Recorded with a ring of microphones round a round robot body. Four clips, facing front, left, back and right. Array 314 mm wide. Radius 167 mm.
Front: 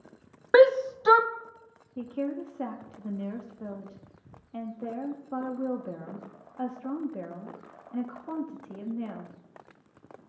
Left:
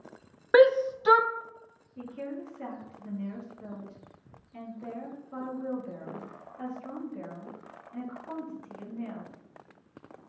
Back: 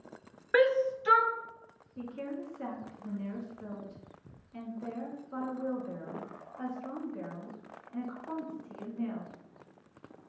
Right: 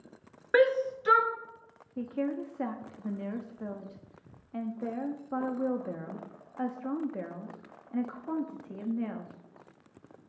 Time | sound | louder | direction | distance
0.5 | a shout | left 5 dB, front 7 dB | 30° left | 0.6 m
2.0 | a woman speaking | right 5 dB, front 6 dB | 50° right | 1.0 m